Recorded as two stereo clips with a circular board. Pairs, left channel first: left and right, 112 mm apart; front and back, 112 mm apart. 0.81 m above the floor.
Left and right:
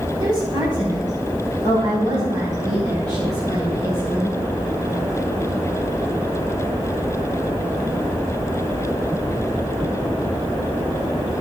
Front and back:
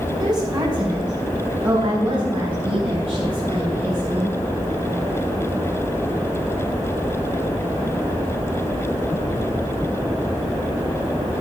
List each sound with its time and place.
0.2 s a woman speaking: 130° right, 4.5 m; by 4.4 s 145° right, 6.5 m